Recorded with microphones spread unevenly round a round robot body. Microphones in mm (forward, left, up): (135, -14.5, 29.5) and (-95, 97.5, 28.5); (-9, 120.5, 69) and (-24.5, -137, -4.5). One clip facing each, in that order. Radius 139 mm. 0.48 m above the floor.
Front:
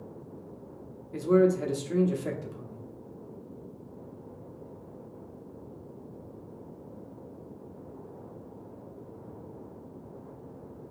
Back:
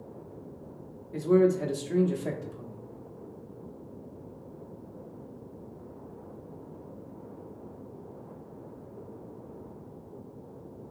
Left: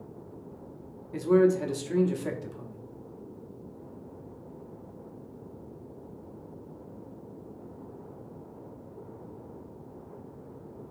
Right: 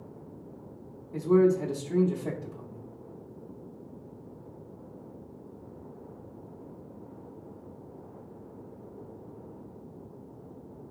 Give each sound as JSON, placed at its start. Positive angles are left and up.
{"t": 1.1, "sound": "a man speaking", "azimuth_deg": 35, "distance_m": 0.9}